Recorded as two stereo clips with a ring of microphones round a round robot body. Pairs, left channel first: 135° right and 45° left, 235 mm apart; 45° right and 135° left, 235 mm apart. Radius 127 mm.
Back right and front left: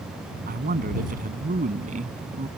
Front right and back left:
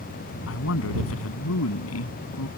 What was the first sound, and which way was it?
A man speaking, 10° right.